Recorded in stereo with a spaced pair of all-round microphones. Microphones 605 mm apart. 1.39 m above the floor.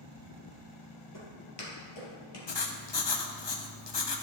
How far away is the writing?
About 0.6 m.